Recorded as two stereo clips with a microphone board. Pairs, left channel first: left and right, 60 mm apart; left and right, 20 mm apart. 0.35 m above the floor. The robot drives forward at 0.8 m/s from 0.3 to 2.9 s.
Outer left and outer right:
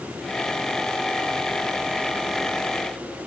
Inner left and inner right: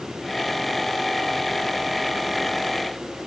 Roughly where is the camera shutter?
No camera shutter in this recording.